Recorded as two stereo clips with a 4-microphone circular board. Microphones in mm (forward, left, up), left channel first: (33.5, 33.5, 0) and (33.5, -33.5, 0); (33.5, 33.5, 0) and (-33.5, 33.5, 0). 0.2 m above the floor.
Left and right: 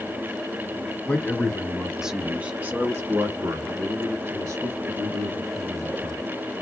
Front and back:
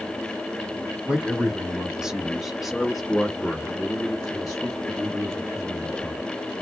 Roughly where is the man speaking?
Behind left.